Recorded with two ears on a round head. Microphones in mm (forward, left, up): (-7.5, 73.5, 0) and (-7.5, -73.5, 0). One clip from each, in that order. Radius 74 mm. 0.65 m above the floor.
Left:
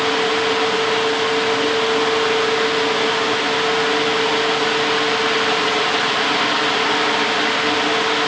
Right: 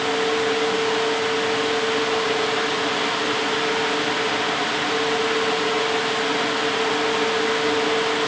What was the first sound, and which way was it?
Only background noise.